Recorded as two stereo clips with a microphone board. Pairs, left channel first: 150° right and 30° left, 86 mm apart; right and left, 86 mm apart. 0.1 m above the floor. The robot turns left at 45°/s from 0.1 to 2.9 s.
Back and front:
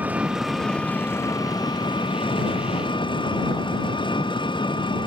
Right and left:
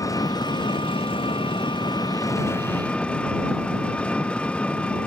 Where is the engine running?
40° right; by 5.1 s 165° right.